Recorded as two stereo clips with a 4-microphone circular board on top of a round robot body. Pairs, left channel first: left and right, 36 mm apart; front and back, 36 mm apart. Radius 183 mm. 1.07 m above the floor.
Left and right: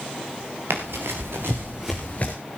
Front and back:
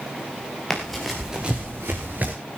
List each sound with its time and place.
0.7 s running footsteps: 85° right, 1.6 m; by 2.3 s 140° left, 1.2 m